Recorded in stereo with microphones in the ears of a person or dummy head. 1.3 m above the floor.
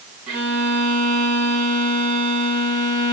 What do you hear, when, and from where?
0.3 s a violin: 35° right (ahead or behind), 2.5 m